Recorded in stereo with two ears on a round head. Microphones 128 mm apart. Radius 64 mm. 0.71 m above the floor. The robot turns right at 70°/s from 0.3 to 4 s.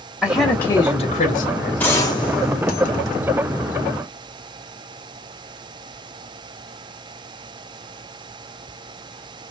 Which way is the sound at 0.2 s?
5° right.